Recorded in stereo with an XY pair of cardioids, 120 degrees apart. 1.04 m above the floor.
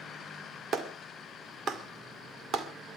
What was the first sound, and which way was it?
A clap, 50° right.